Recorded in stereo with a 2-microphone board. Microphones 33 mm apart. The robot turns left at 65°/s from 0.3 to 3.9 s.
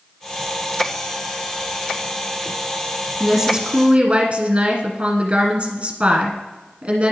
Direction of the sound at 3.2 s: 5° left.